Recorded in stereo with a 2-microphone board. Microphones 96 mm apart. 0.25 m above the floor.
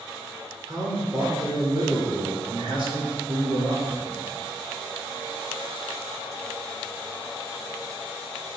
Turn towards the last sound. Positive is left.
turn(degrees=-65)  # may be behind; listen again after turning